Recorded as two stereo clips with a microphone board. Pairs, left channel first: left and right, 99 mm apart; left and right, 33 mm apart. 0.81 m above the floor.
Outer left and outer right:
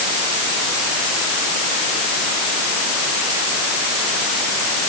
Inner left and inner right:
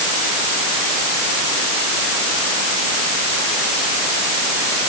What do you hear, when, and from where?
Only background noise.